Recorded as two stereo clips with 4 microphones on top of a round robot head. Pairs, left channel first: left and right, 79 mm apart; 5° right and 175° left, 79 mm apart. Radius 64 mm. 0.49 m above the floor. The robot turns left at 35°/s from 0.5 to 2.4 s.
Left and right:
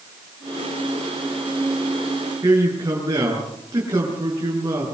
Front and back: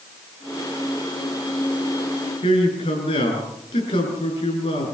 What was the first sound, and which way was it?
A man speaking, 30° right.